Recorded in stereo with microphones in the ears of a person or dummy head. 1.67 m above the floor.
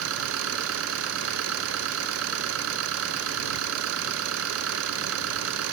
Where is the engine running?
80° right.